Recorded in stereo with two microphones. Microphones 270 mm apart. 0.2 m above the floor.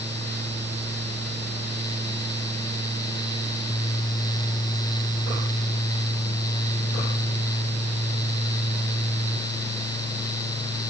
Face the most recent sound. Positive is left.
No sound to turn to.